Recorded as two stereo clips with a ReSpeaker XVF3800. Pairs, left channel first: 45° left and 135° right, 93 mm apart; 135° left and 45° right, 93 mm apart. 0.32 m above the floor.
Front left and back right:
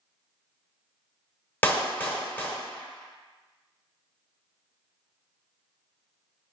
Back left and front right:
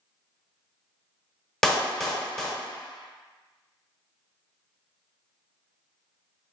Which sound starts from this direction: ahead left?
A clap, at 1.6 s.